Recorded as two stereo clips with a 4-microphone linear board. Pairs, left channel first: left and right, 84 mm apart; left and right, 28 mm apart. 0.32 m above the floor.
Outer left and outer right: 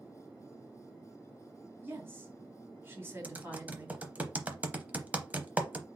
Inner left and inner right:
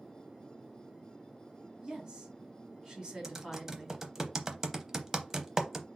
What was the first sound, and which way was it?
A woman speaking, 30° right (ahead or behind).